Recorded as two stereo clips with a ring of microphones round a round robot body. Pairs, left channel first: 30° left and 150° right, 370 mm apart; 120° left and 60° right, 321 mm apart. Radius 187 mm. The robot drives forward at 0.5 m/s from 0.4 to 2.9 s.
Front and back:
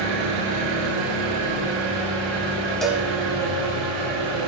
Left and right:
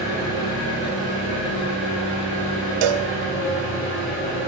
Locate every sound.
0.0 s an engine running: 160° right, 2 m; by 4.5 s 165° right, 3.5 m
2.8 s a cowbell: 60° right, 0.6 m; by 3.1 s 65° right, 0.5 m